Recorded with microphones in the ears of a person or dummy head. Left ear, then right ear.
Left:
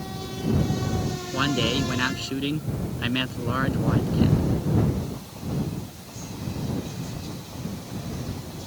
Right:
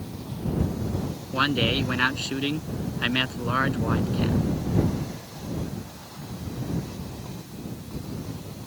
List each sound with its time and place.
1.3 s a man speaking: 25° right (ahead or behind)